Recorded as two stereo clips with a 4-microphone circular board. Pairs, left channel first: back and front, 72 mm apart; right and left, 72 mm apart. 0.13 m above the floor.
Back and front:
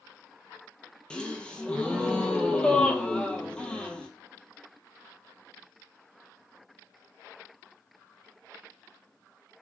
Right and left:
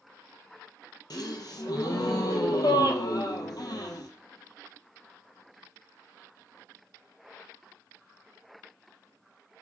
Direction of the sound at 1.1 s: 105° right.